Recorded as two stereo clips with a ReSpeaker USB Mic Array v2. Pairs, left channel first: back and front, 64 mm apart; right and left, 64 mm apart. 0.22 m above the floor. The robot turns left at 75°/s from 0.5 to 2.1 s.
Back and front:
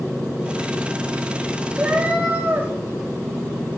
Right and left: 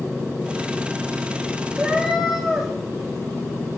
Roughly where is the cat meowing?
Ahead left.